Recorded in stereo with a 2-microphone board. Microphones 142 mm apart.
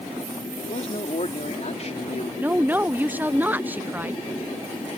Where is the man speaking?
50° left (ahead or behind).